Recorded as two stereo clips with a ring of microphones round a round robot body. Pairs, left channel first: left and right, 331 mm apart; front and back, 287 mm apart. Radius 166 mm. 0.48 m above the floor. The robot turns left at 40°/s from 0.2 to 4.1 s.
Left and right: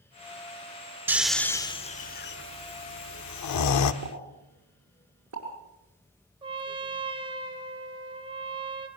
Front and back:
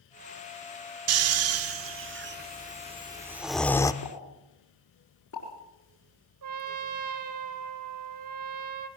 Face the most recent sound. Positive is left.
turn(degrees=-165)